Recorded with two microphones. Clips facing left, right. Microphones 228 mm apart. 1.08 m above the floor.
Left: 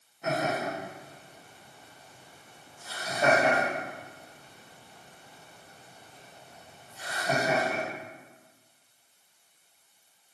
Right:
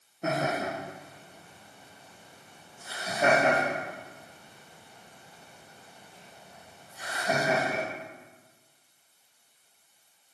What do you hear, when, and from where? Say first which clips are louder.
0.2 s laughter: even; 50° right (ahead or behind), 2 m; by 7.8 s 10° right (ahead or behind), 5.5 m